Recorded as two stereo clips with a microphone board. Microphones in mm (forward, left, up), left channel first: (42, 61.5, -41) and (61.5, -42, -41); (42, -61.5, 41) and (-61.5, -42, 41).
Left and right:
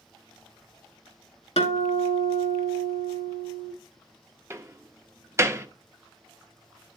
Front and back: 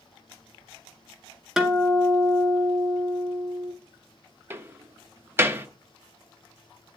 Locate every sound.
1.6 s a guitar: 80° left, 1.8 m
4.5 s a door slam: 135° right, 0.7 m